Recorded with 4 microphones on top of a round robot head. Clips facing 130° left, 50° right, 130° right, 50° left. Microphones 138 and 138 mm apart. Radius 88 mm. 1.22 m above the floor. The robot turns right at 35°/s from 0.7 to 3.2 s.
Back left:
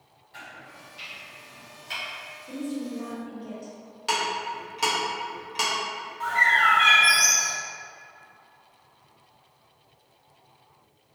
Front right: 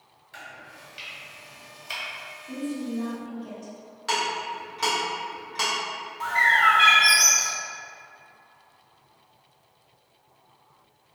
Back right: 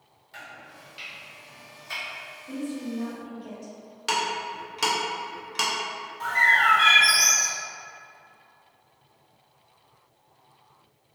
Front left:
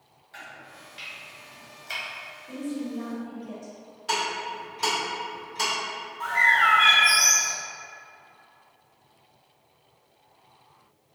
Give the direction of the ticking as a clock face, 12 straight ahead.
5 o'clock.